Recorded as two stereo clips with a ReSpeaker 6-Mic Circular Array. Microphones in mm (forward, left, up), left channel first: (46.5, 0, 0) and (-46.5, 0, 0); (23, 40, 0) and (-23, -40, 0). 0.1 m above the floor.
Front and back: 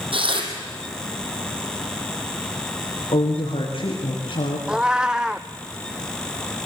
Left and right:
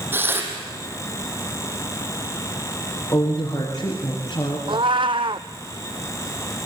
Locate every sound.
0.1 s tearing paper: 175° left, 4 m
3.1 s a woman speaking: 10° left, 6 m
4.7 s a cat meowing: 100° right, 0.7 m